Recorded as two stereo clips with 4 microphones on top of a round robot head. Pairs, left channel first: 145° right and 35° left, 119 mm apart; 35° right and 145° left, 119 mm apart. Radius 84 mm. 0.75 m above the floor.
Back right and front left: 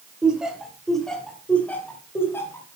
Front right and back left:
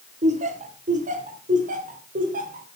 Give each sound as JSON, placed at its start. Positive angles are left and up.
{"t": 0.2, "sound": "laughter", "azimuth_deg": 120, "distance_m": 2.5}